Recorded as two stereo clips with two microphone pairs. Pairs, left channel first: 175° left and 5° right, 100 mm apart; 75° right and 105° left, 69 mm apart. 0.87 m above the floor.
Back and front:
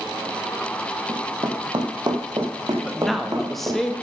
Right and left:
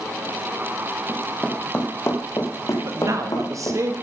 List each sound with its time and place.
1.1 s running footsteps: 5° left, 1.3 m; by 3.8 s 60° right, 2.5 m
2.8 s a man speaking: 85° left, 1.2 m